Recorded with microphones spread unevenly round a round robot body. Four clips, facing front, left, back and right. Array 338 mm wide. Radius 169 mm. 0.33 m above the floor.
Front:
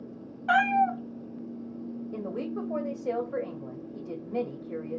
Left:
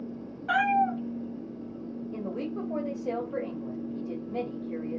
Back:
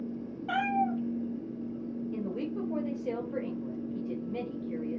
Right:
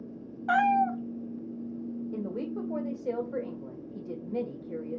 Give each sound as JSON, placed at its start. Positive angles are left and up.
{"t": 0.5, "sound": "a cat meowing", "azimuth_deg": -35, "distance_m": 0.7}
{"t": 2.1, "sound": "a woman speaking", "azimuth_deg": -30, "distance_m": 1.4}